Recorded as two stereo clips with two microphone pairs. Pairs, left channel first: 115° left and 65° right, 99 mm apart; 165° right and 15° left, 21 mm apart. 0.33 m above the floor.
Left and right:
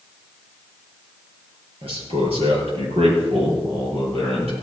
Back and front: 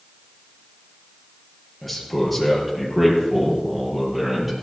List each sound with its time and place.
1.8 s a man speaking: 80° right, 6 m; by 4.5 s 65° right, 7.5 m